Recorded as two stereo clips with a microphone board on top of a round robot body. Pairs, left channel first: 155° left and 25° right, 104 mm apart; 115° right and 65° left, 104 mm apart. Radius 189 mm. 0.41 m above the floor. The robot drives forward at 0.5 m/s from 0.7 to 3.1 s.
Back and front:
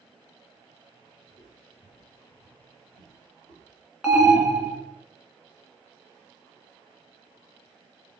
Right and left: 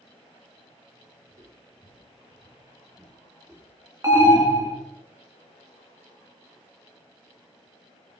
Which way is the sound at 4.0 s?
55° left.